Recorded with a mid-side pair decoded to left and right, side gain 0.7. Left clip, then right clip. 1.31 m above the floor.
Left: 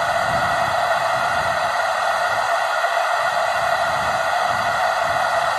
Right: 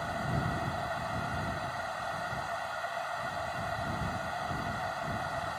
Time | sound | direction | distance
0.0 | a machine running | 60° left | ?